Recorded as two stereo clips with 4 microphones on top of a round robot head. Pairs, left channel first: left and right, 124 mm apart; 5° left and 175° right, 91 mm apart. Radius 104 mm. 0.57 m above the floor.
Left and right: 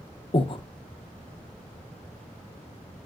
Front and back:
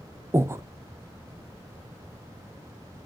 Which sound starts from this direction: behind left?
Breathing, at 0.3 s.